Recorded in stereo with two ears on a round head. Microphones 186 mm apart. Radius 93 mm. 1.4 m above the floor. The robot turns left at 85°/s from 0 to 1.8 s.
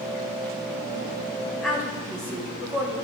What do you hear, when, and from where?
1.6 s a woman speaking: 5° left (ahead or behind), 3.5 m; by 2.9 s 10° right (ahead or behind), 3.5 m